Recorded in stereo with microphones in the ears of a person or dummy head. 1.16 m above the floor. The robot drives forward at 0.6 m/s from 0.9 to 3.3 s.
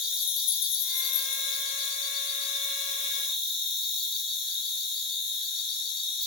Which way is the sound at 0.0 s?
5° right (ahead or behind).